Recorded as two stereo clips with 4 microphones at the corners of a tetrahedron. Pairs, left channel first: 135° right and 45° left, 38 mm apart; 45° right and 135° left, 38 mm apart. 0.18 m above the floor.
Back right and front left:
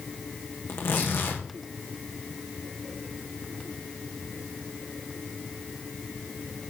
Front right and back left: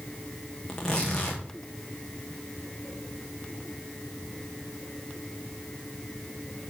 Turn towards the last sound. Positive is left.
turn(degrees=-115)